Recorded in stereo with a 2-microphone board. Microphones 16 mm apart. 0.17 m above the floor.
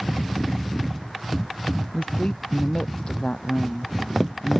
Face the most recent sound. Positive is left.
turn(degrees=60)  # may be behind; listen again after turning